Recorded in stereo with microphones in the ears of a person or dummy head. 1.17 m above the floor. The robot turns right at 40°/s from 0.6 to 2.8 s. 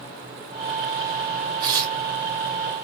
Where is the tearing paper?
25° right (ahead or behind), 1.4 m; by 2.0 s 10° right (ahead or behind), 1.4 m.